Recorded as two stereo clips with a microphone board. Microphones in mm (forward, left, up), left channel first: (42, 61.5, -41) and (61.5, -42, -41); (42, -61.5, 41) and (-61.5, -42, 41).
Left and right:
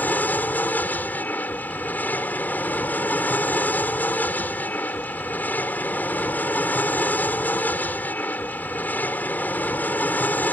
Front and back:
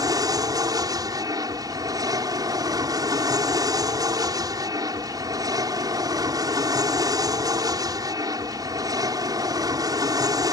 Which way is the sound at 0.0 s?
160° left.